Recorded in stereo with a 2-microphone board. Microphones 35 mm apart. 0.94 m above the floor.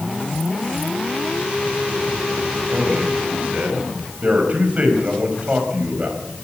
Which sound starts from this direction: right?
A man speaking, at 2.7 s.